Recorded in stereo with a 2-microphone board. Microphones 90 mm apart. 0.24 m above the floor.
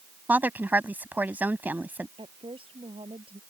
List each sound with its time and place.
0.3 s a woman speaking: 20° right (ahead or behind)
2.2 s a woman speaking: 75° right (ahead or behind)